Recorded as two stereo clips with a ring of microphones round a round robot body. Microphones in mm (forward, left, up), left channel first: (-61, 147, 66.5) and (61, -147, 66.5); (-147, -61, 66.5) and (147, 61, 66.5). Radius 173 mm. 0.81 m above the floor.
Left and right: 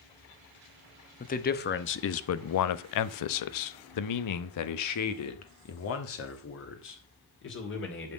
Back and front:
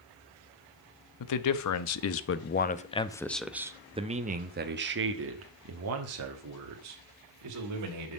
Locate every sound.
1.2 s a man speaking: straight behind, 1.3 m; by 8.2 s 55° left, 3 m